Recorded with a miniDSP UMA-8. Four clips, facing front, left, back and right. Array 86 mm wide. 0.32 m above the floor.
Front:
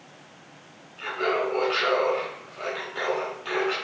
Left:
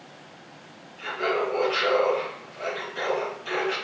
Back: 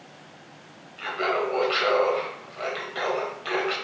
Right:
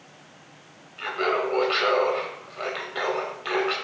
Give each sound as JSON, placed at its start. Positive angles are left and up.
{"t": 1.0, "sound": "laughter", "azimuth_deg": -120, "distance_m": 1.1}